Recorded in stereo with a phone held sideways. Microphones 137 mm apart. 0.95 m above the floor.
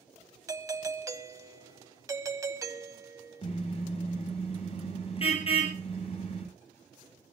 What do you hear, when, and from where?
0.5 s a doorbell: 20° right (ahead or behind), 1.1 m
3.4 s a car horn: 45° left (ahead or behind), 8.5 m